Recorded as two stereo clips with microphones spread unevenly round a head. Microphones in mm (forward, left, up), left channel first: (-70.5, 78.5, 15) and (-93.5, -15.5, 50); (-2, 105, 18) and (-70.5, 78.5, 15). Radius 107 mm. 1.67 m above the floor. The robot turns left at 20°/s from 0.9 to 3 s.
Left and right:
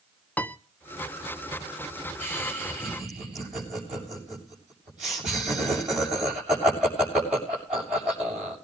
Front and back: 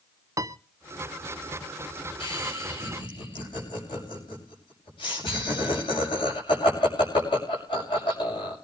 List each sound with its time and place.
0.4 s a piano: 165° left, 0.8 m
2.2 s laughter: 5° right, 7 m; by 8.6 s 20° right, 7 m